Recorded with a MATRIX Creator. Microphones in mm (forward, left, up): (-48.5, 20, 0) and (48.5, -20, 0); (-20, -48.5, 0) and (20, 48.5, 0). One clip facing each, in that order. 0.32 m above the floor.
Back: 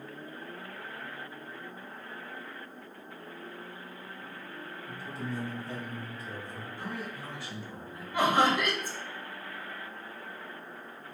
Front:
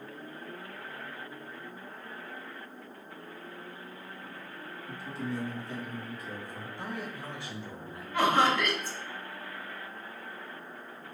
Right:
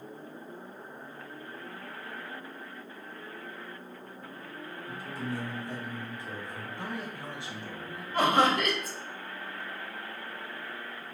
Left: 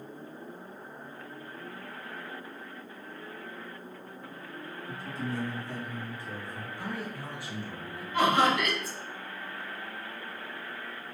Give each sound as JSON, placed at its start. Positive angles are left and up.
{"t": 4.9, "sound": "a man speaking", "azimuth_deg": 170, "distance_m": 1.9}
{"t": 6.8, "sound": "a man speaking", "azimuth_deg": -65, "distance_m": 1.1}
{"t": 8.1, "sound": "laughter", "azimuth_deg": -135, "distance_m": 1.1}